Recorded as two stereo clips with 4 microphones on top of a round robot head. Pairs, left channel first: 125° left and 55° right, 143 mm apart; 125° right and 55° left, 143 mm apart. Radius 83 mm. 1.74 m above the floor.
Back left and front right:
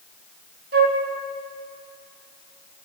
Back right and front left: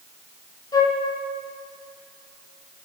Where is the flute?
60° right, 3.5 m.